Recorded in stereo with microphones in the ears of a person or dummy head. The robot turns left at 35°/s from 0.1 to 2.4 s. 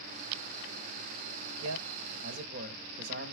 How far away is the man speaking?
About 1.9 m.